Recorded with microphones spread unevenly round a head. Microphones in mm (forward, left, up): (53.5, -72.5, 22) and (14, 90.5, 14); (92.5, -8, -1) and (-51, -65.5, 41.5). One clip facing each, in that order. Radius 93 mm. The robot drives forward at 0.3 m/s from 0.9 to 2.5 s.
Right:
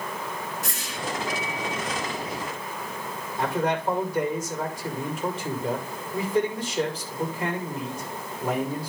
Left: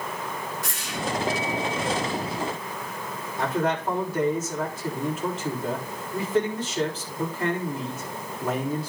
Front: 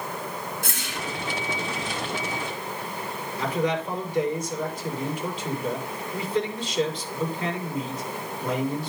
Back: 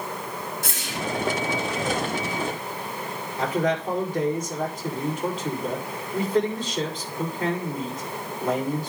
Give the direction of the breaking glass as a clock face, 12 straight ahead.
No breaking glass in this recording.